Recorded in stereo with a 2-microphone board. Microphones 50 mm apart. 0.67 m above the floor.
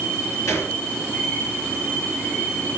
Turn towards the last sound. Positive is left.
turn(degrees=85)